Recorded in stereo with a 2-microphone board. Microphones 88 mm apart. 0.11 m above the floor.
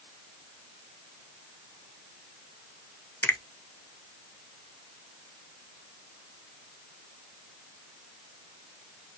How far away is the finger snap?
About 0.9 m.